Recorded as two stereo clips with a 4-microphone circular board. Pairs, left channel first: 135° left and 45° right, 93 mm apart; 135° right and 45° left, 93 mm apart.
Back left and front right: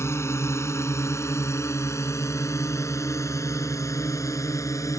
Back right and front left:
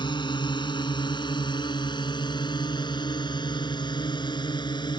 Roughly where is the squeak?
I don't hear a squeak.